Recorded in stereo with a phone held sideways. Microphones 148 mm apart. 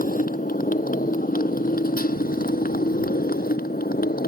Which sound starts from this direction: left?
A motorcycle, at 0.0 s.